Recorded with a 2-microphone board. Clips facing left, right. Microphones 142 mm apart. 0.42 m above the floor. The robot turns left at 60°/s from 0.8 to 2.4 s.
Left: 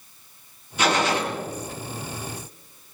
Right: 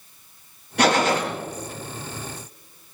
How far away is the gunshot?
About 4 m.